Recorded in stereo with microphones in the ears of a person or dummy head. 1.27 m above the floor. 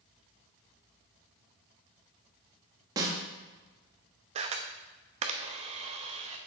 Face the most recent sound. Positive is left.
turn(degrees=-35)  # may be behind; listen again after turning